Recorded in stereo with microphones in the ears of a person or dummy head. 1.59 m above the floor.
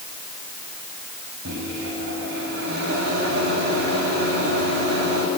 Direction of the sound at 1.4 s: 70° right (ahead or behind).